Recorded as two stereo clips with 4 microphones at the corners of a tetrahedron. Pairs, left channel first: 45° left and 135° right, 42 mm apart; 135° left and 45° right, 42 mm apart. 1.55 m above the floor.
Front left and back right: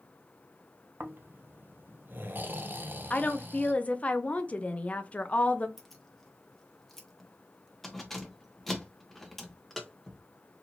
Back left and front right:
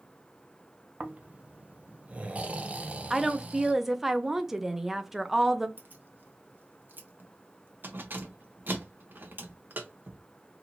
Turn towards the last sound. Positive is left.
turn(degrees=-35)